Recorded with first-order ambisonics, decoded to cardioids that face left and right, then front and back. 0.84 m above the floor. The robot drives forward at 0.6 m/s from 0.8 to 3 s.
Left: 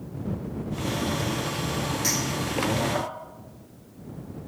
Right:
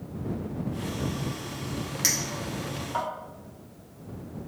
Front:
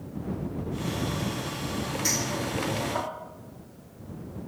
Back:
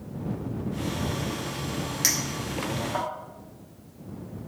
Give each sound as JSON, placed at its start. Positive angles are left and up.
{"t": 2.0, "sound": "a clink", "azimuth_deg": -150, "distance_m": 0.8}